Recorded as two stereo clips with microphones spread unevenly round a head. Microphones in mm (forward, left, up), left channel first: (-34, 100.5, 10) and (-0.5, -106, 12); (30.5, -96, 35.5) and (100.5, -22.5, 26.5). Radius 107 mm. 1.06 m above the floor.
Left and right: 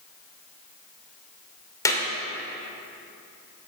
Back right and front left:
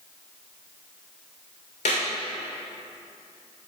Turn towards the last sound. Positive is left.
turn(degrees=175)